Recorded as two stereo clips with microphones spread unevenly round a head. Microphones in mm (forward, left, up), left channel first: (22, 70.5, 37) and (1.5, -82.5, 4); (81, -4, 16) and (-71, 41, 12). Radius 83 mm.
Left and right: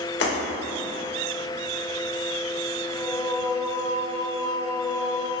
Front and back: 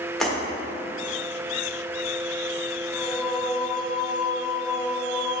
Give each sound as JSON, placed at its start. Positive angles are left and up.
{"t": 0.2, "sound": "breaking glass", "azimuth_deg": 70, "distance_m": 1.9}
{"t": 2.9, "sound": "singing", "azimuth_deg": 40, "distance_m": 1.0}